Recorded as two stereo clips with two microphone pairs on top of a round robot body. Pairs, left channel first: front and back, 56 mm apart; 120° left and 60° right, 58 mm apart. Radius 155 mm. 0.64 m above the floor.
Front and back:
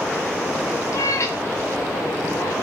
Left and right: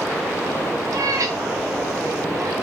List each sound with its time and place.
0.9 s a cat meowing: 30° right, 0.6 m